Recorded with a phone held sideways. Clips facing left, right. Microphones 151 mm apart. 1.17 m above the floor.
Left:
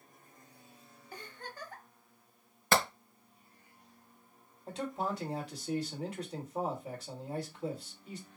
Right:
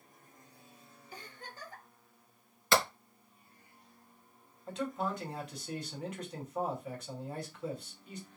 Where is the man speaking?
35° left (ahead or behind), 2 m.